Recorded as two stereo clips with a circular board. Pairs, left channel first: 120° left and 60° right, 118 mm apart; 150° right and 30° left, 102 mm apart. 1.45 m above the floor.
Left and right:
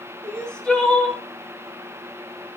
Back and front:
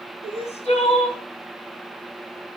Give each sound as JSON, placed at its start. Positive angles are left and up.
{"t": 0.2, "sound": "crying", "azimuth_deg": -155, "distance_m": 3.5}